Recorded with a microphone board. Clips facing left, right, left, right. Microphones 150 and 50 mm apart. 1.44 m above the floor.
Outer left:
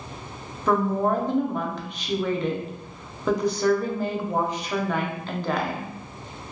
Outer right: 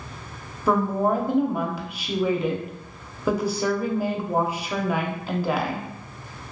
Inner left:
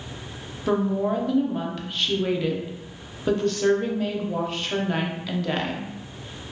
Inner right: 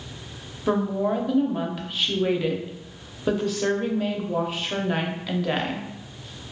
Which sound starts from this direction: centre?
A woman speaking, at 0.7 s.